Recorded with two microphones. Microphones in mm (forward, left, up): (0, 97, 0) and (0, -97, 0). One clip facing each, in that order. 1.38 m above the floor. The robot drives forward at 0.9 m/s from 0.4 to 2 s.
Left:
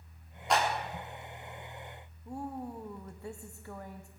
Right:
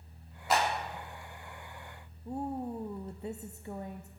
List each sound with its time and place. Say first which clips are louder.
0.5 s a clap: even; 5° right (ahead or behind), 4 m
2.2 s a woman speaking: right 4 dB; 20° right (ahead or behind), 0.7 m